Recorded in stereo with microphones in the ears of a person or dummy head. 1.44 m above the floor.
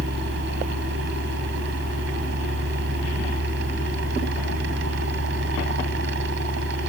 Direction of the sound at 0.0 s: 60° right (ahead or behind).